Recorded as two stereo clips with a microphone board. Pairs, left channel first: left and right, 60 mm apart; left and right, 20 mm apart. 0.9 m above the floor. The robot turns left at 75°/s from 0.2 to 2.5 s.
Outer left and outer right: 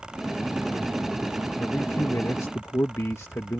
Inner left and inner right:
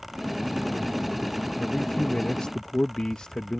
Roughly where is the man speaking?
Behind left.